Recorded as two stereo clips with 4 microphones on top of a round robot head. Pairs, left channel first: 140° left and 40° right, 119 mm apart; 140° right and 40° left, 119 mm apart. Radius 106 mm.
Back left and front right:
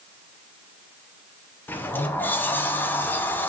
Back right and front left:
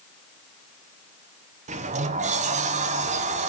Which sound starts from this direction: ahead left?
A sliding door, at 1.7 s.